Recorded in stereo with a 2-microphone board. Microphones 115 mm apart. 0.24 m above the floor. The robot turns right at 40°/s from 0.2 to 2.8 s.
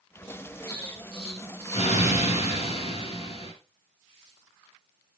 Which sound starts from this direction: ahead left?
An explosion, at 0.7 s.